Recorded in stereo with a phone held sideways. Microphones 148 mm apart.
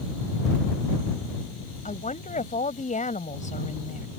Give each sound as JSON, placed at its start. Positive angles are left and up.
{"t": 1.9, "sound": "a woman speaking", "side_deg": 60}